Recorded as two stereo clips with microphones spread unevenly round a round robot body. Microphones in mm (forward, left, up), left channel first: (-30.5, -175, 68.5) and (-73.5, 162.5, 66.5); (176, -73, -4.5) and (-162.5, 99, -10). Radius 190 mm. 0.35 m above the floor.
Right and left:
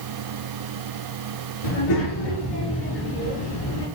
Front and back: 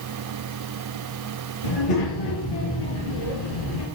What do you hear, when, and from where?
1.6 s a child speaking: 65° right, 6 m; by 3.9 s 55° right, 5 m